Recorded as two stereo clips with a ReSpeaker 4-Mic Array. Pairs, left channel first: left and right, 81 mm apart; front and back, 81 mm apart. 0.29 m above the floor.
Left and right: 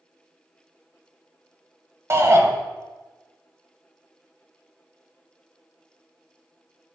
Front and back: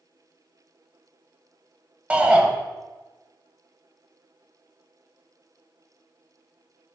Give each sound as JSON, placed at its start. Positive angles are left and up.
{"t": 2.1, "sound": "a shout", "azimuth_deg": -115, "distance_m": 1.2}